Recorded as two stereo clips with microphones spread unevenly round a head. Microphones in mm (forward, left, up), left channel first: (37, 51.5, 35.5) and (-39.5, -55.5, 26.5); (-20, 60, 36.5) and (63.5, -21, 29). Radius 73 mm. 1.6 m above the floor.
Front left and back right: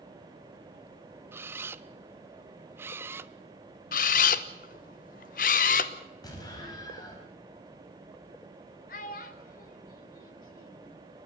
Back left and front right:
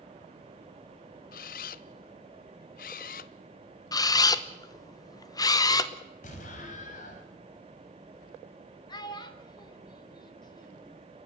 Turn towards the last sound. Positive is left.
turn(degrees=85)